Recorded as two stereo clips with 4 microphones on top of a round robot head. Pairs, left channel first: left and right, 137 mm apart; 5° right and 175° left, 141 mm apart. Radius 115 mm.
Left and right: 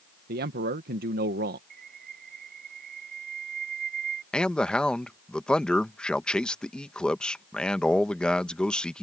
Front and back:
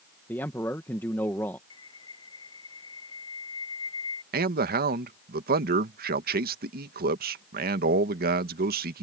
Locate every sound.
0.3 s a man speaking: 80° right
1.7 s a bird: 70° right
4.3 s a man speaking: 175° left